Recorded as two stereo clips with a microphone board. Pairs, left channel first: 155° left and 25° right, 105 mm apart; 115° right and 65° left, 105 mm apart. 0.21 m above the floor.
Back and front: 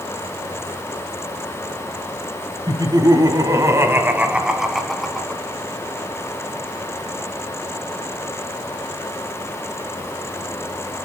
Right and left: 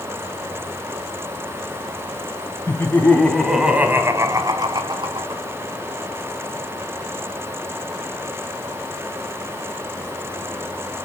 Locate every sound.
2.7 s laughter: 55° right, 2 m; by 5.4 s 75° left, 2.5 m